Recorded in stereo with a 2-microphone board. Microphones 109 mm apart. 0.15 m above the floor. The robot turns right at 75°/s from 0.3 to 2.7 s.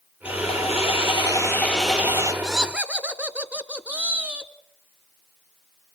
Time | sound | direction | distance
0.2 | sawing | 65° left | 4.5 m
2.4 | laughter | centre (ahead or behind) | 1.3 m